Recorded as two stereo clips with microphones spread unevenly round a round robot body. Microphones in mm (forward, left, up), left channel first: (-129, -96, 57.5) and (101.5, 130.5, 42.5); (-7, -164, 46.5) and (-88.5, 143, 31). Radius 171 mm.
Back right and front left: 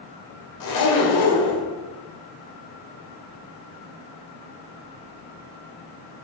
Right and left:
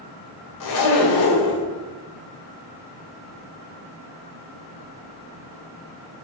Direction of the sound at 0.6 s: 100° right.